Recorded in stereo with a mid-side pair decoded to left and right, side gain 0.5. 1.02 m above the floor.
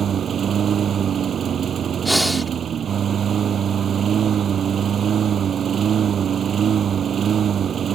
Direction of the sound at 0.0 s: 45° right.